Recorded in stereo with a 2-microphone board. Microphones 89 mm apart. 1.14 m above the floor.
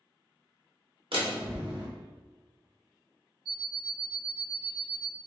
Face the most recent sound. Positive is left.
turn(degrees=-45)  # may be behind; listen again after turning